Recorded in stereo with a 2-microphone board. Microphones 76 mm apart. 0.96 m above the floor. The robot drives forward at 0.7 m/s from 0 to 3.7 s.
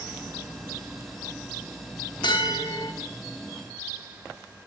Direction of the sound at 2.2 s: 80° left.